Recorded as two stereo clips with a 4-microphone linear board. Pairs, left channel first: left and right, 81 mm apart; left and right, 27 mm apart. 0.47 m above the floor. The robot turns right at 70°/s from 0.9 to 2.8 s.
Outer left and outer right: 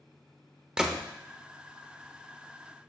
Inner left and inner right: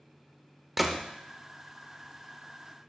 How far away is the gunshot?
About 0.6 m.